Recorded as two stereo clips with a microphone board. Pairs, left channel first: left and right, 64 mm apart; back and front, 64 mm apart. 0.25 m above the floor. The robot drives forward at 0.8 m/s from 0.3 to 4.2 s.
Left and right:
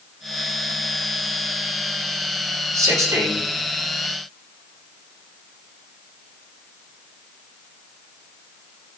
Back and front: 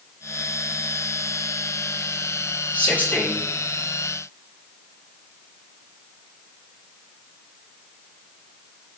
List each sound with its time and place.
2.7 s a man speaking: 120° right, 5.5 m